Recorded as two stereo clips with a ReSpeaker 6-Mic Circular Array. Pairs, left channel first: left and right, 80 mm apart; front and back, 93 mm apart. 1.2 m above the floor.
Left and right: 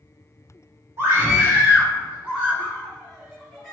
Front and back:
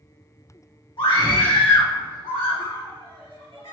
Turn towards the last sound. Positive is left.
turn(degrees=-5)